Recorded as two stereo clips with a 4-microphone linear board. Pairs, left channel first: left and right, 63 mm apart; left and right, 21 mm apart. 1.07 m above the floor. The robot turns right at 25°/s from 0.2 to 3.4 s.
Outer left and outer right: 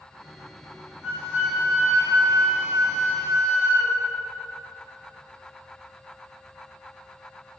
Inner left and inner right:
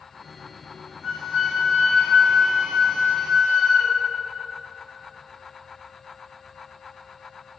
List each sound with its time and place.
1.0 s a flute: 140° left, 2.0 m; by 4.0 s 160° right, 2.0 m